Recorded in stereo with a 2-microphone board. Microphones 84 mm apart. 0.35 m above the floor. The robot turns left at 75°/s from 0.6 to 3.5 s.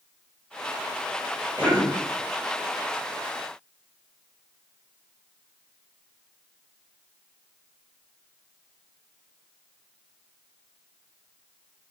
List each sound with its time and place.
1.6 s a cough: 25° right (ahead or behind), 1.6 m; by 1.9 s 10° right (ahead or behind), 1.6 m